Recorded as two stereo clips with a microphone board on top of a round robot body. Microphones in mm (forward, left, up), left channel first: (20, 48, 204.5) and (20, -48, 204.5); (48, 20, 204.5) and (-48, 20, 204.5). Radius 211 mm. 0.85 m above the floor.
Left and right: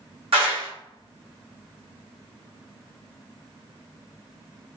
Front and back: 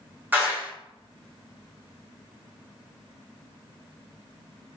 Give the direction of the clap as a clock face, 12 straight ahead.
4 o'clock.